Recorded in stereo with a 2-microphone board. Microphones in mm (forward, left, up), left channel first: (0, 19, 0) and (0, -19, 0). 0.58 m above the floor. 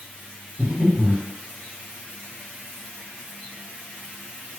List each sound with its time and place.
0.6 s breathing: 40° right (ahead or behind), 1.3 m